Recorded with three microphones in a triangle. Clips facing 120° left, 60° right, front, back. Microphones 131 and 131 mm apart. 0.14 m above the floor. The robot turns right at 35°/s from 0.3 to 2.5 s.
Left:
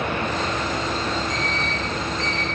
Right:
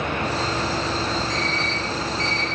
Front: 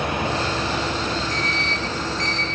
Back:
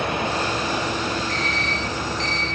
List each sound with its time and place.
1.3 s an alarm clock: 150° right, 3 m; by 2.5 s 110° right, 3 m